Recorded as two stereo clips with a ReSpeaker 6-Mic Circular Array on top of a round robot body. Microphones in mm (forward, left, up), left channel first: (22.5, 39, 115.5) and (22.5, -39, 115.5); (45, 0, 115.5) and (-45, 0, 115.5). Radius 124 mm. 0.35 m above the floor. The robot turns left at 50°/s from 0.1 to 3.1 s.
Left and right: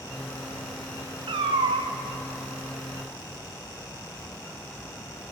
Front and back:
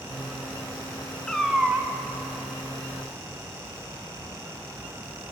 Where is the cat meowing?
85° right, 0.6 m; by 1.9 s 115° right, 0.6 m.